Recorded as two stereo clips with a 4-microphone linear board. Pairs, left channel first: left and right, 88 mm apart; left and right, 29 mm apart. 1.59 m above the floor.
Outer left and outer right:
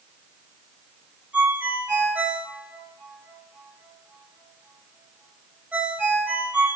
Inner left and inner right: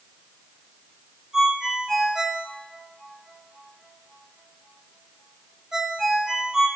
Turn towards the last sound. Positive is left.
turn(degrees=-15)  # may be behind; listen again after turning